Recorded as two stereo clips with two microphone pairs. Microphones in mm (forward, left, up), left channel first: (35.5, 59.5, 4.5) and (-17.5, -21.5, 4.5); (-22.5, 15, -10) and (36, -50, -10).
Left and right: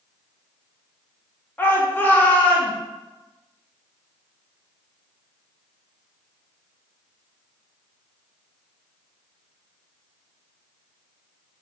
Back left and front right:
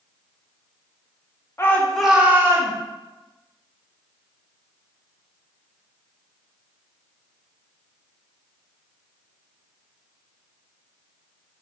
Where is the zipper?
I don't hear a zipper.